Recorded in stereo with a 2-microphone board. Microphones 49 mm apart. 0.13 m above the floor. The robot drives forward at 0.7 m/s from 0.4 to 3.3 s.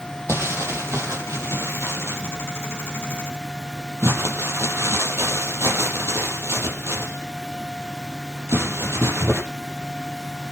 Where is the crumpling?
65° right (ahead or behind), 5.5 m; by 9.4 s 70° right (ahead or behind), 5.5 m.